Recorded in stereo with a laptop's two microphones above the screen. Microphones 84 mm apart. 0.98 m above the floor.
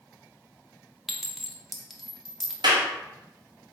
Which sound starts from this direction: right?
A clap, at 2.6 s.